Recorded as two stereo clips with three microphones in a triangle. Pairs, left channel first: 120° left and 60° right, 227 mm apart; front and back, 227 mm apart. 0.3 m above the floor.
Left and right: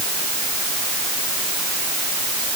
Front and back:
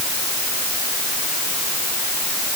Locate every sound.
Only background noise.